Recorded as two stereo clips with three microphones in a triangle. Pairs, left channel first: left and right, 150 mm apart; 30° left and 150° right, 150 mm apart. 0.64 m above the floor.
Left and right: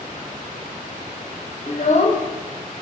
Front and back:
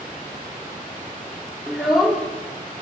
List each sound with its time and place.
1.7 s a child speaking: 120° left, 1.1 m